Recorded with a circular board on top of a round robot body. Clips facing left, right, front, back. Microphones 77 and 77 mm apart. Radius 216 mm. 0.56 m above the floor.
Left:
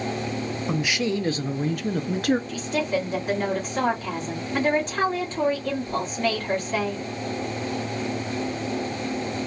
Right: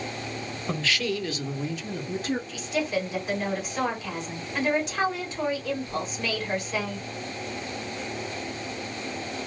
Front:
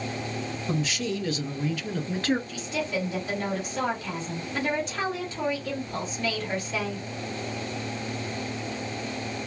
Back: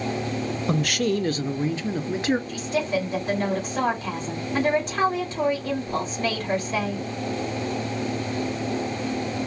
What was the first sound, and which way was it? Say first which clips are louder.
A man speaking: left 2 dB, back 6 dB; 170° left.